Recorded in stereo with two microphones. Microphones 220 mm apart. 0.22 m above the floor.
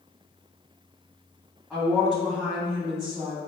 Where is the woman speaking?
Centre (ahead or behind), 1.7 m.